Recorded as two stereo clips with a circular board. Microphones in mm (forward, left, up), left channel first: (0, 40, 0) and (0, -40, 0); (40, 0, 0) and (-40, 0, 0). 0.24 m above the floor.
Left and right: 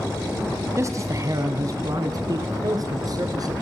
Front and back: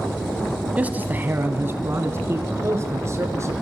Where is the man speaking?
115° right, 1.3 m; by 3.5 s 125° right, 3.5 m.